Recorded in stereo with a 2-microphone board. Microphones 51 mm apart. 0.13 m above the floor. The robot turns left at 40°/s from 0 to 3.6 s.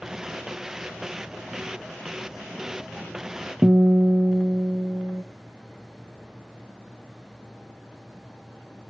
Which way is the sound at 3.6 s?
15° right (ahead or behind).